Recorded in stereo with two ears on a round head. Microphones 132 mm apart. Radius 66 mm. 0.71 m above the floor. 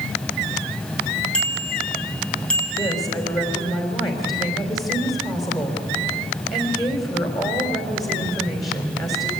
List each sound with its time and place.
1.3 s a bicycle bell: 10° left (ahead or behind), 4 m
2.8 s a woman speaking: 25° left (ahead or behind), 3.5 m